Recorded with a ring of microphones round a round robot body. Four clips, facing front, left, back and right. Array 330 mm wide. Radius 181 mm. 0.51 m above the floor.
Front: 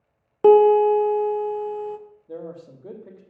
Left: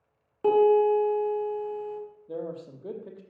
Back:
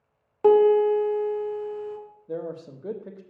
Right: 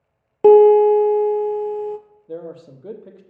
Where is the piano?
60° right, 0.8 m.